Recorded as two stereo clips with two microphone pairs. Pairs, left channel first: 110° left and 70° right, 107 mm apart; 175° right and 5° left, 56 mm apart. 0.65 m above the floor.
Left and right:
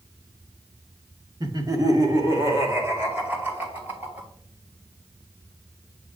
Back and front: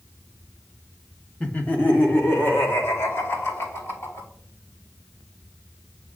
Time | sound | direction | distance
1.4 | laughter | 110° right | 1.2 m